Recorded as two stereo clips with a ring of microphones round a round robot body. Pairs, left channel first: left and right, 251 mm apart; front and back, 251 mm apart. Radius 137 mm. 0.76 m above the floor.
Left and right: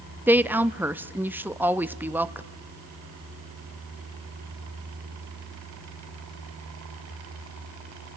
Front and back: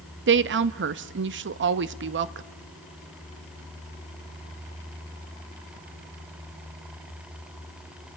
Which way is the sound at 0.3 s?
170° right.